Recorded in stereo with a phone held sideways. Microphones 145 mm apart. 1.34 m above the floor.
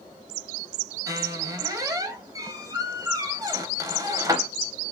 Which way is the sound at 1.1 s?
20° right (ahead or behind).